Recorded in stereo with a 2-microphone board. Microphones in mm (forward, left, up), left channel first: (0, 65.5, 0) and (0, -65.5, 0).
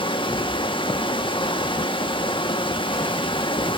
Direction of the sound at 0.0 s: 40° left (ahead or behind).